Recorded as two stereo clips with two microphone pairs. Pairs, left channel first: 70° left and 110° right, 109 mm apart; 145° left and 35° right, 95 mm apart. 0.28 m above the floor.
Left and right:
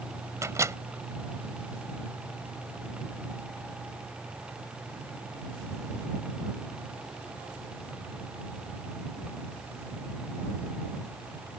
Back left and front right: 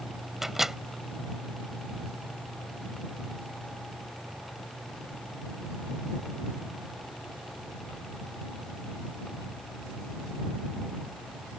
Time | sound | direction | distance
0.4 | a microwave | 125° right | ?